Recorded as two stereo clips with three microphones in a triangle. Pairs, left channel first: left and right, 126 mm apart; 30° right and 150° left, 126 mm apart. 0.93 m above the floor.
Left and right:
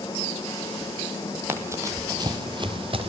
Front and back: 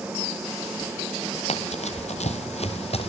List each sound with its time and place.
1.5 s running footsteps: 20° right, 2 m; by 3.1 s 55° right, 2.5 m